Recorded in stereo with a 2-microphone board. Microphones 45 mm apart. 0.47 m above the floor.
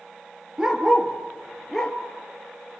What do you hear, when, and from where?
0.6 s a dog barking: 15° right (ahead or behind), 2.5 m; by 2.0 s 15° left (ahead or behind), 2 m